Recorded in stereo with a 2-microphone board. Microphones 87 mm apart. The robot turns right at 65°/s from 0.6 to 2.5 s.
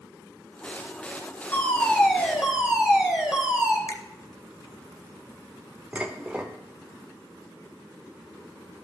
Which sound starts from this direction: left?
A finger snap, at 3.9 s.